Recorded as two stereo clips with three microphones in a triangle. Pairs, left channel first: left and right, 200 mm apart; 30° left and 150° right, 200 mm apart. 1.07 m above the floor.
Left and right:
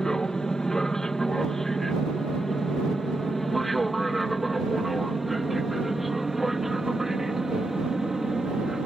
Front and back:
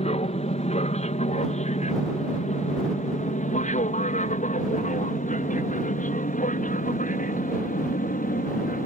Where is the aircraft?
5° left; by 8.9 s straight ahead.